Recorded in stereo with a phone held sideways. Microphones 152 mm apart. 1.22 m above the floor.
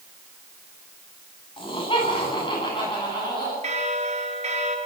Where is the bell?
50° right (ahead or behind), 3.5 m.